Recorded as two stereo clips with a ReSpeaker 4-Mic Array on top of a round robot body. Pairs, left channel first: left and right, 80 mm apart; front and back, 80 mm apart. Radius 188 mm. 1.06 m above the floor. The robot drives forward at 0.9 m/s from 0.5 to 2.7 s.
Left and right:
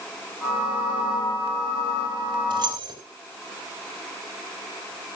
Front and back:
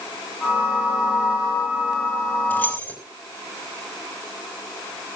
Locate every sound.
2.5 s keys jangling: 65° right, 4 m; by 3.0 s 70° right, 4 m